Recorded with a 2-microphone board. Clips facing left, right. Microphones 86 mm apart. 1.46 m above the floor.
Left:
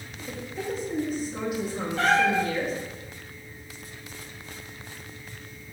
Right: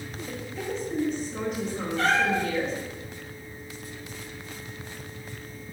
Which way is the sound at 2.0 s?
65° left (ahead or behind).